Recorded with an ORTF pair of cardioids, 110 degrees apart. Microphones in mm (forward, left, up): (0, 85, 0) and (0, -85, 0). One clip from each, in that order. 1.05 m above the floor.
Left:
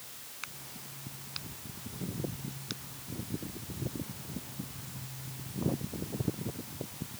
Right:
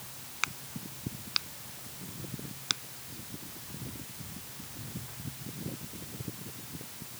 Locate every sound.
0.4 s a crack: 55° right